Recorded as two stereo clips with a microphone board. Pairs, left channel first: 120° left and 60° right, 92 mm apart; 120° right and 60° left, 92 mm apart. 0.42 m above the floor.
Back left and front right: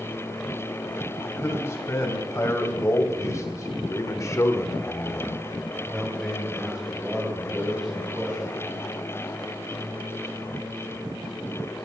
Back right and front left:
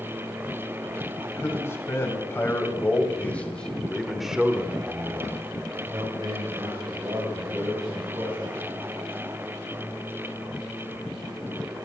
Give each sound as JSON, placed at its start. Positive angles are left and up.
{"t": 1.2, "sound": "a man speaking", "azimuth_deg": 180, "distance_m": 2.5}